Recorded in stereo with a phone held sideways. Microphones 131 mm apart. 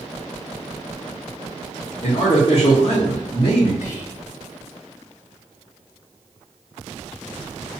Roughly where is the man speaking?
Left.